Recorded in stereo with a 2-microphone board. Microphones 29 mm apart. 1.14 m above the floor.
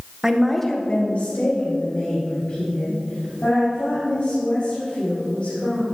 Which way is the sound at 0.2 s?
20° right (ahead or behind).